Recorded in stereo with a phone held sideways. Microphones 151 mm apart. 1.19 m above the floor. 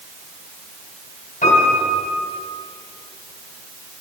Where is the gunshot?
I don't hear a gunshot.